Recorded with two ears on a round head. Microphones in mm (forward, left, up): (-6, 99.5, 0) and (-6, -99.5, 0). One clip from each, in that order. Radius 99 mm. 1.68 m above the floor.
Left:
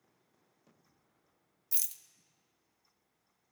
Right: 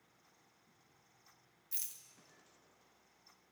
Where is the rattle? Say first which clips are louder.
Left 7 dB; 25° left (ahead or behind), 0.8 m.